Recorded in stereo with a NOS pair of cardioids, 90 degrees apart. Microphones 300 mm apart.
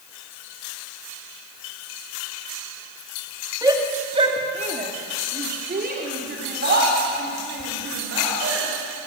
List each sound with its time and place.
3.6 s a shout: 10° right, 2.5 m; by 8.7 s 45° right, 5.5 m